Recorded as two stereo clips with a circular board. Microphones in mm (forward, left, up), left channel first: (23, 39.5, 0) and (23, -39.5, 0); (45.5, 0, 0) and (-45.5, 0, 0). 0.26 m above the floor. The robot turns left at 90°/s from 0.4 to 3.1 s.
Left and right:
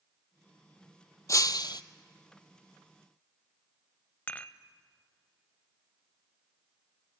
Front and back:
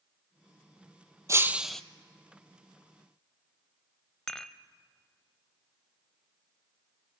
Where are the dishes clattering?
70° left, 0.8 m.